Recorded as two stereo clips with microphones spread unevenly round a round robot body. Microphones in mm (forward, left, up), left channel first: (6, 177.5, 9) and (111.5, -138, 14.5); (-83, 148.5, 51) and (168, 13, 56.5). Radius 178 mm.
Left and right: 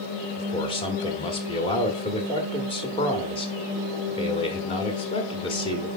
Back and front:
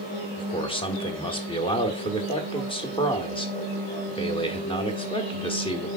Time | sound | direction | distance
0.4 | a man speaking | 140° left | 1.2 m